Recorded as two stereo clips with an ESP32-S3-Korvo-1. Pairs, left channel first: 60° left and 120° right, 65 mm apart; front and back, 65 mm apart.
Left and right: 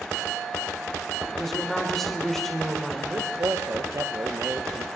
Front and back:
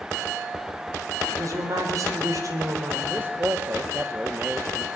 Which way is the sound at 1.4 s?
145° left.